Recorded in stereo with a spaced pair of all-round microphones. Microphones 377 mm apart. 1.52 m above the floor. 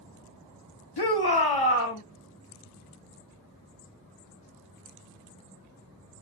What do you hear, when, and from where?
1.0 s a shout: 85° left, 1.2 m; by 2.0 s 65° left (ahead or behind), 1.7 m